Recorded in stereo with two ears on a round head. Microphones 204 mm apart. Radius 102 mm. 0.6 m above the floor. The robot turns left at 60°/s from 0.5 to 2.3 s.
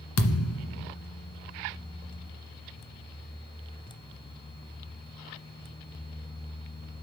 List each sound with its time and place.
0.2 s a thud: 65° left (ahead or behind), 1.6 m; by 0.9 s 45° left (ahead or behind), 1.6 m